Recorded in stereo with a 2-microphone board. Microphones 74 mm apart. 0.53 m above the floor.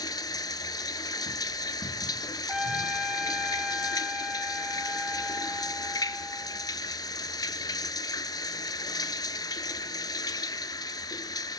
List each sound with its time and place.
0.0 s running water: 60° left (ahead or behind), 0.8 m
2.5 s a trumpet: 10° right (ahead or behind), 2.5 m